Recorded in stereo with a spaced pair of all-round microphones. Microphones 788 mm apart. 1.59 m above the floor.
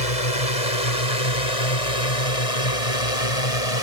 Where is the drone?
45° left (ahead or behind); by 3.8 s 40° left (ahead or behind).